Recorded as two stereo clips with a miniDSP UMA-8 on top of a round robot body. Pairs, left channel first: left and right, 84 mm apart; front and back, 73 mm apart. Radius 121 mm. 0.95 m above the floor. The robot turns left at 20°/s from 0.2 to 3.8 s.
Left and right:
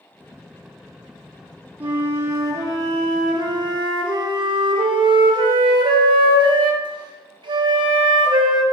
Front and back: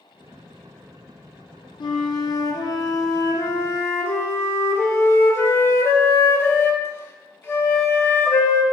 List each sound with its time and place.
1.8 s a flute: 20° right, 0.5 m; by 8.6 s 60° right, 0.5 m